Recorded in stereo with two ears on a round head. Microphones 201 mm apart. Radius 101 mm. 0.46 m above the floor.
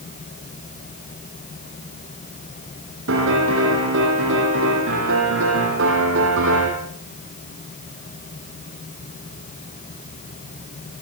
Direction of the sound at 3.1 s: 60° right (ahead or behind).